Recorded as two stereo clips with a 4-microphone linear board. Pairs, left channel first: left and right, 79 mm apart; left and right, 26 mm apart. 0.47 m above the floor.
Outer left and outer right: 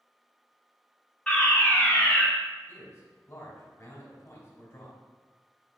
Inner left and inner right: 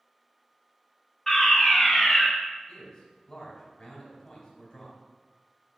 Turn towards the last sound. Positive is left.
turn(degrees=40)  # may be behind; listen again after turning